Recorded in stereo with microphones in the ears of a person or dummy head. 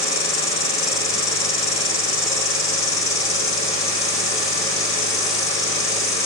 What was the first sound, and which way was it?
An insect, 35° left (ahead or behind).